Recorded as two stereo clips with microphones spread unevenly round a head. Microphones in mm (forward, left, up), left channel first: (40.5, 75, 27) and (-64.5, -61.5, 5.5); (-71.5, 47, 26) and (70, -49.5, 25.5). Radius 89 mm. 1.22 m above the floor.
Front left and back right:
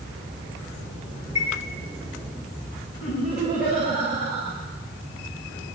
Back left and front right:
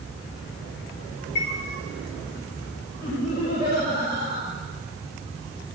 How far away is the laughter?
About 5 m.